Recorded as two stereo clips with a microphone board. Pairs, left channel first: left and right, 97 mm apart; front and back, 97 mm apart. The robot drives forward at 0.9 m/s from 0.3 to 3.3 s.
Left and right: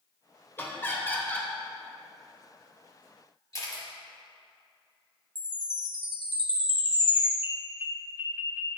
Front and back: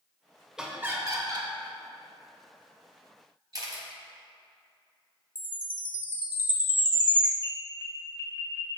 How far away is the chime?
About 1.0 m.